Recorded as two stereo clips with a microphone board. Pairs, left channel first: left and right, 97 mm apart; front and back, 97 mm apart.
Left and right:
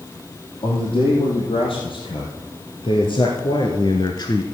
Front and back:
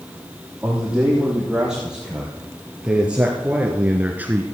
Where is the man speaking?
95° left, 5 m; by 4.4 s 115° left, 1.7 m.